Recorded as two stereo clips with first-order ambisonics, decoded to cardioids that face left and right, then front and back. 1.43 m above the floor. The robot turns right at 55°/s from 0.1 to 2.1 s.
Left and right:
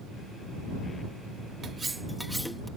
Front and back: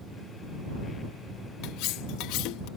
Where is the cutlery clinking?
30° right; by 2.7 s straight ahead.